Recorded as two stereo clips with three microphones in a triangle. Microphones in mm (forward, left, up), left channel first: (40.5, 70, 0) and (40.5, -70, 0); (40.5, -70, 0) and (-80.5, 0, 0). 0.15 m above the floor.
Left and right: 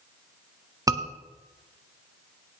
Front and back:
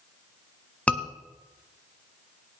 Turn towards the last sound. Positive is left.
turn(degrees=-100)